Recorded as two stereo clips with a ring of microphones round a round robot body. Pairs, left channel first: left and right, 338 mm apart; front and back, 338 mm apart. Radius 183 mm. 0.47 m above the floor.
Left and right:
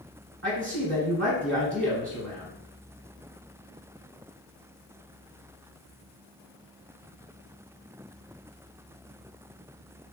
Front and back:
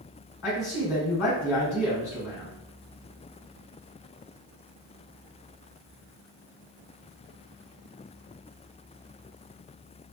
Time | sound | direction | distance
0.4 | a man speaking | 40° right | 1.5 m